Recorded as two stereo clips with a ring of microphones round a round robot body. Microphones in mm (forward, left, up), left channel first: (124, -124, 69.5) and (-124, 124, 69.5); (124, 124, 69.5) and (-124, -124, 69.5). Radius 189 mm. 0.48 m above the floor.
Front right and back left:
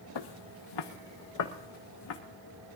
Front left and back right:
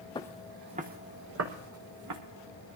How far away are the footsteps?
About 0.7 m.